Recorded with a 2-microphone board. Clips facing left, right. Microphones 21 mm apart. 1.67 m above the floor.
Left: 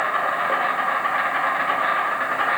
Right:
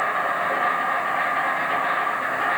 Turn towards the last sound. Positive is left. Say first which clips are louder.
# left 1 dB
turn(degrees=65)  # may be behind; listen again after turning